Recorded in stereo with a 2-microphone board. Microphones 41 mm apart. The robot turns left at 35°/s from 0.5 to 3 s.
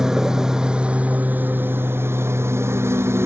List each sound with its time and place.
0.0 s a lawn mower: 10° right; by 3.3 s 100° right